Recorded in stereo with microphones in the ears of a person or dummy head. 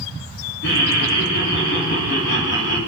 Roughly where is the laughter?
Left.